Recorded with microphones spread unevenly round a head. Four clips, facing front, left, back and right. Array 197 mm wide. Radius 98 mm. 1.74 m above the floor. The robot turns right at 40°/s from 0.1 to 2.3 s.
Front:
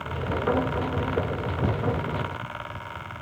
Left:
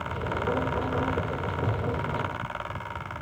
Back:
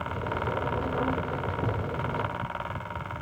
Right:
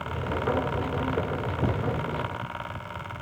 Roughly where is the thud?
Right.